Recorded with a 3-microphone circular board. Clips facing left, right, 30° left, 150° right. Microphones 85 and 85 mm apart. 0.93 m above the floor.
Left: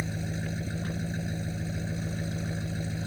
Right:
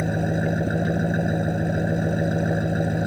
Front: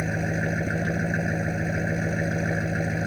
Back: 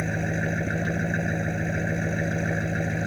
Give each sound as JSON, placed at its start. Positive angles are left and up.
{"t": 0.0, "sound": "an engine running", "azimuth_deg": -55}